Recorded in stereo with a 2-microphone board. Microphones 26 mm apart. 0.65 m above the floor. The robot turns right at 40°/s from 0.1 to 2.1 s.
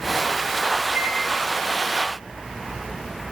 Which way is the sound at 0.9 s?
70° right (ahead or behind).